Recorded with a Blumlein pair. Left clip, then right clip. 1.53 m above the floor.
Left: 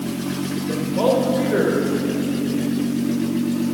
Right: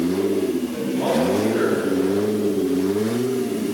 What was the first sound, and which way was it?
A man speaking, 60° left.